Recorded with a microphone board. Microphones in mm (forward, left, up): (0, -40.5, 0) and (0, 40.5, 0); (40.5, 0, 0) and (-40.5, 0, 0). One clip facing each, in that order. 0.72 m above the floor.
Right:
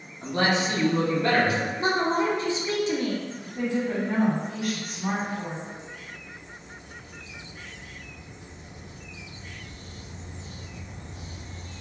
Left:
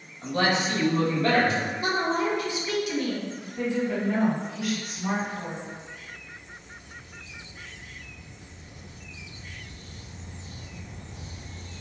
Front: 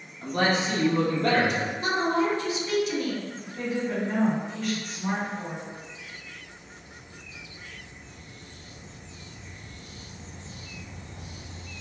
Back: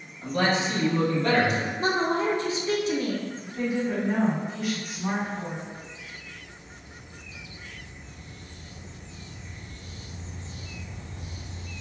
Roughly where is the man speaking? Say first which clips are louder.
Even, even; ahead right.